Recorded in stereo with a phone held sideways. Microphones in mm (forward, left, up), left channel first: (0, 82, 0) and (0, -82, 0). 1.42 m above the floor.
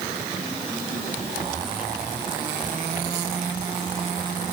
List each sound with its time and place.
Only background noise.